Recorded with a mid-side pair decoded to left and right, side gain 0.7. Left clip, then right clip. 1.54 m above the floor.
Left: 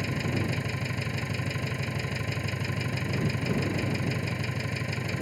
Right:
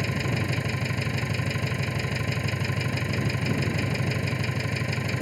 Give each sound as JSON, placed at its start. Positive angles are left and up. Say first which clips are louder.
{"t": 0.0, "sound": "an engine running", "louder": "right 2 dB", "azimuth_deg": -20}